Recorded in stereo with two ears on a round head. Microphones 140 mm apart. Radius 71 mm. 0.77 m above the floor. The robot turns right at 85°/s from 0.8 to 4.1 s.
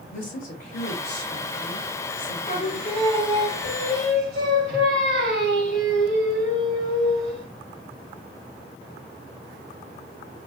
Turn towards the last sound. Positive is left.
turn(degrees=-100)